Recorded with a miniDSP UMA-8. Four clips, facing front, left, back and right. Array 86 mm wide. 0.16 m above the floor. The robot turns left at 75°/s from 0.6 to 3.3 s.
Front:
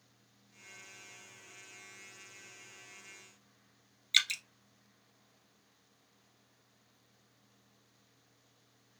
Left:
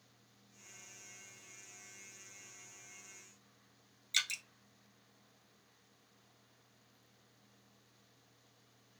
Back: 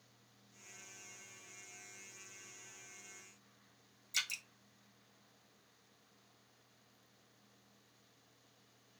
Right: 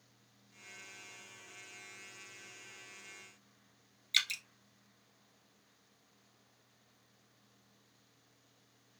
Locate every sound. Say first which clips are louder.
4.1 s dripping: right 2 dB, front 8 dB; 15° right, 0.5 m